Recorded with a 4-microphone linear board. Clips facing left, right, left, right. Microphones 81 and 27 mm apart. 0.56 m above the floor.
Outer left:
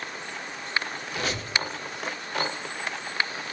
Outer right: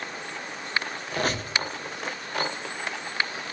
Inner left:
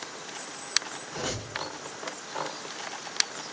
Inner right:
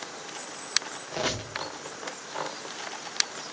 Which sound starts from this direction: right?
A squeak, at 1.1 s.